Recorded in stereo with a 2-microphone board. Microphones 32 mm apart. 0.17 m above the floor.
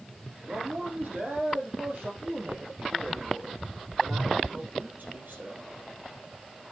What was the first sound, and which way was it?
A man speaking, 65° right (ahead or behind).